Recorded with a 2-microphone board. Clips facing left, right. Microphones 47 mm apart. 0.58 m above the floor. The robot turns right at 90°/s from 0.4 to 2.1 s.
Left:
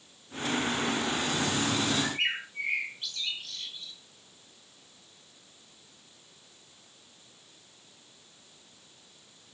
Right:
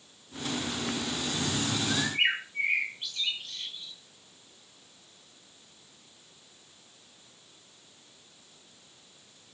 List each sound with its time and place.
1.9 s a bird: 45° right (ahead or behind), 3.5 m; by 3.9 s 25° right (ahead or behind), 3.5 m